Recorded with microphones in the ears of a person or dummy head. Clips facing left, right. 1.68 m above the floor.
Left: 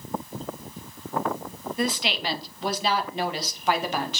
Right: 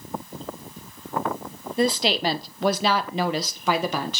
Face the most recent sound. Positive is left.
turn(degrees=-80)